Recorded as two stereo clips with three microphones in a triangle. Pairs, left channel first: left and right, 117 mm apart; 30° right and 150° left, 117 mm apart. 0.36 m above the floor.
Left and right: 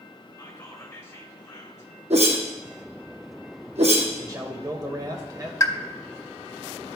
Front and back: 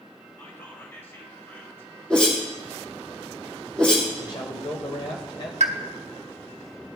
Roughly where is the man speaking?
Ahead right.